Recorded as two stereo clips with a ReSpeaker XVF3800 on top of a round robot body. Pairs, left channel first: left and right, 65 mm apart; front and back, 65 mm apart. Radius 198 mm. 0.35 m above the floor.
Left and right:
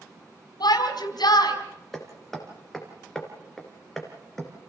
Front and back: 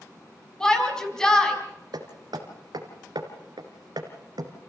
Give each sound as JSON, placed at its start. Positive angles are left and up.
{"t": 0.6, "sound": "a shout", "azimuth_deg": 80, "distance_m": 4.0}
{"t": 1.9, "sound": "hammering", "azimuth_deg": 175, "distance_m": 2.5}